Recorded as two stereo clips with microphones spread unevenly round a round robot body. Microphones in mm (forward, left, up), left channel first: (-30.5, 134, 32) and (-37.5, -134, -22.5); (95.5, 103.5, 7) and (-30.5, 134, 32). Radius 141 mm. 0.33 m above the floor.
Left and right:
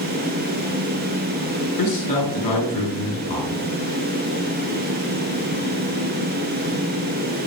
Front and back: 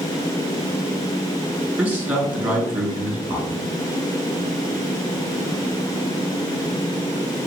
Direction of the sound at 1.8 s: 90° left.